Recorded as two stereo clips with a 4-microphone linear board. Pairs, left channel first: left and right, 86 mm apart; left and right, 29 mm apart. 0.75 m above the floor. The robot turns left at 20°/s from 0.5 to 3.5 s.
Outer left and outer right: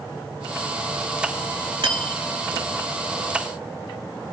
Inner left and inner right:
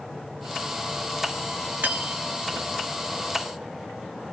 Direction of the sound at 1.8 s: 80° right.